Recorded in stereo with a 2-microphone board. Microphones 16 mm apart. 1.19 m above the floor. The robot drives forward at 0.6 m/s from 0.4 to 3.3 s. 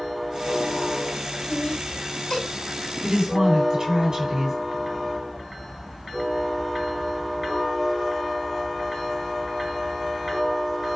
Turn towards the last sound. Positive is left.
turn(degrees=-45)  # may be behind; listen again after turning